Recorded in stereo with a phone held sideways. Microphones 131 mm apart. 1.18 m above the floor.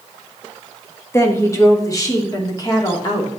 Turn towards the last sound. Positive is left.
turn(degrees=35)  # may be behind; listen again after turning